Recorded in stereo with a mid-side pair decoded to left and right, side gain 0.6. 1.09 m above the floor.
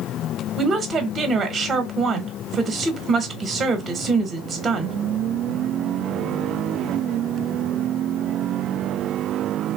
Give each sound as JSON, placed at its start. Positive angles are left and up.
{"t": 0.6, "sound": "a woman speaking", "azimuth_deg": -35, "distance_m": 0.9}